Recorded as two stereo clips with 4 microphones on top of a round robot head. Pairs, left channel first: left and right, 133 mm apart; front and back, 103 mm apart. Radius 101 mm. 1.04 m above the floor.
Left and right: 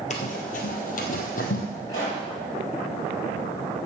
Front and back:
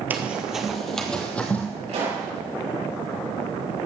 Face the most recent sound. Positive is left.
turn(degrees=160)